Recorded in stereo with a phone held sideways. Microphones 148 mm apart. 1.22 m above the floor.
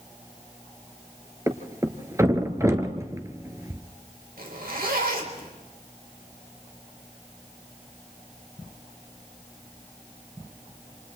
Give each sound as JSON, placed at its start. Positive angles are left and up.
{"t": 1.5, "sound": "a thud", "side_deg": -20, "distance_m": 1.7}
{"t": 4.4, "sound": "a zipper", "side_deg": -85, "distance_m": 3.5}